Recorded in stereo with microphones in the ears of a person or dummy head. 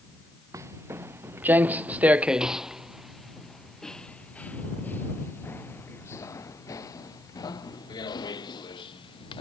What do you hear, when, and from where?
0.5 s footsteps: 15° right (ahead or behind); by 9.4 s 25° left (ahead or behind)